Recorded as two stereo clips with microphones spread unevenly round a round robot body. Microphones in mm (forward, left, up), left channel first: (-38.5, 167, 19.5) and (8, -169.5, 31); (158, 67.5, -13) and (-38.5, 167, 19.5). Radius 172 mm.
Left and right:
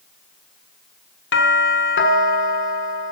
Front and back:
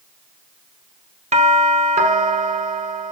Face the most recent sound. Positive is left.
turn(degrees=105)